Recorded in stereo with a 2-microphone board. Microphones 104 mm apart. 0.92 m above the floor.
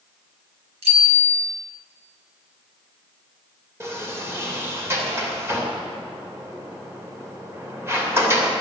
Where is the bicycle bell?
75° right (ahead or behind), 4.5 m.